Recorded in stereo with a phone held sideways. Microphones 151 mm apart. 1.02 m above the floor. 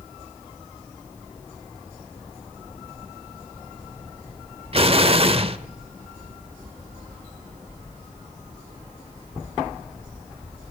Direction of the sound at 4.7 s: 40° right (ahead or behind).